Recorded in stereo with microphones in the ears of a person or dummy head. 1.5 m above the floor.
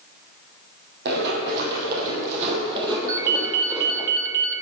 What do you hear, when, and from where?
1.1 s running footsteps: 60° right (ahead or behind), 3 m; by 4.1 s centre (ahead or behind), 2.5 m
3.1 s a ringtone: 55° right (ahead or behind), 0.7 m